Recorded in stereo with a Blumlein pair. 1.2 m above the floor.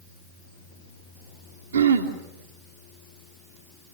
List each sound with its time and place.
1.7 s throat clearing: 70° right, 2.5 m